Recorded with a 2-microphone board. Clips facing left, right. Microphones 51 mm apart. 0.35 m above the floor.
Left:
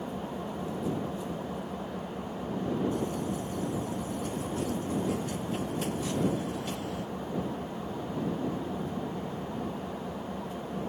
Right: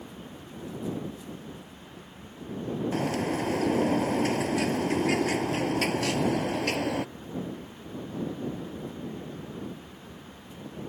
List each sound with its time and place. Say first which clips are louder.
0.0 s an engine running: left 8 dB; 75° left (ahead or behind)
2.9 s a bird: right 4 dB; 85° right